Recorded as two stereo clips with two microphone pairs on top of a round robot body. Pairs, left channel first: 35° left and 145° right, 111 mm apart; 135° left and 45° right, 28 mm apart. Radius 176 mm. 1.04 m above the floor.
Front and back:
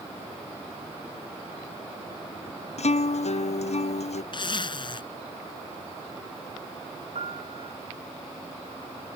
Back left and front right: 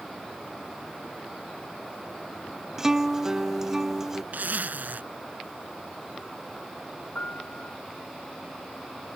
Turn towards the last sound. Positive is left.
turn(degrees=175)